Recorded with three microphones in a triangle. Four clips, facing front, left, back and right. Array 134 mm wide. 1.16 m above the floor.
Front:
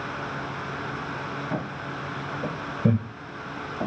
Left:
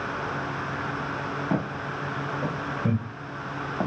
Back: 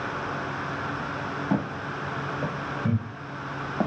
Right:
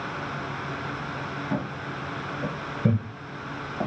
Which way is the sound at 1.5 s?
135° left.